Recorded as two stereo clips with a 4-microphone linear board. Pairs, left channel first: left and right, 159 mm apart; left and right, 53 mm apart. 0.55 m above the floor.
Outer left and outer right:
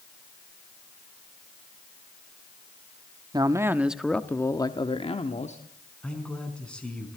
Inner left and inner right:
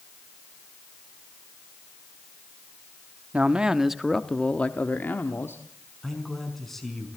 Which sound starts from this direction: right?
A man speaking, at 3.3 s.